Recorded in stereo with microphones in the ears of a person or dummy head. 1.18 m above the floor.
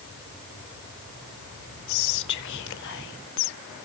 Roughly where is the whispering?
Left.